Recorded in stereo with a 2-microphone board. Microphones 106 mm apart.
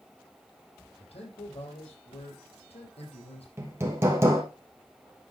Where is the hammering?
25° right (ahead or behind), 3 m.